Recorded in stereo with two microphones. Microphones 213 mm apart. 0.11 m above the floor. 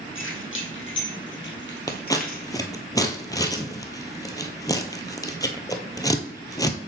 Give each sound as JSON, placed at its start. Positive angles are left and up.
{"t": 0.1, "sound": "keys jangling", "side_deg": 70, "distance_m": 2.5}
{"t": 1.9, "sound": "scissors", "side_deg": 15, "distance_m": 0.8}